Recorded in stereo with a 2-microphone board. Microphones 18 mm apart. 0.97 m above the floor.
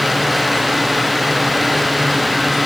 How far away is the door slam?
No door slam in this recording.